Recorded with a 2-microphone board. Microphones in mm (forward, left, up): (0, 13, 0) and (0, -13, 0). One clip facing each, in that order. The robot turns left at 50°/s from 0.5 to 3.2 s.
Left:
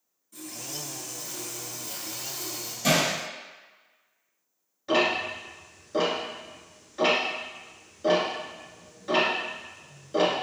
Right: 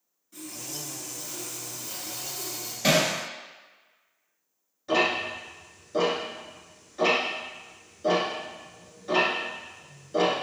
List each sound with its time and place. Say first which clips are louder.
0.3 s sawing: even; 20° right (ahead or behind), 1.6 m; by 2.7 s 20° left (ahead or behind), 1.6 m
2.8 s hammering: right 1 dB; 40° right (ahead or behind), 1.7 m; by 3.1 s 45° right (ahead or behind), 1.7 m
4.9 s ticking: even; 20° left (ahead or behind), 1.6 m